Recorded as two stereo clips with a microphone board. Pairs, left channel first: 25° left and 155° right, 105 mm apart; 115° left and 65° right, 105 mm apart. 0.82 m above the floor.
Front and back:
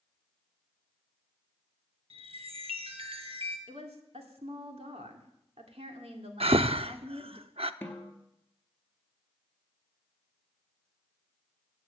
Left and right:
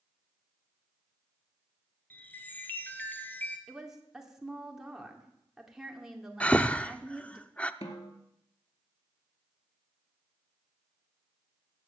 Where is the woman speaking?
155° right, 2.5 m.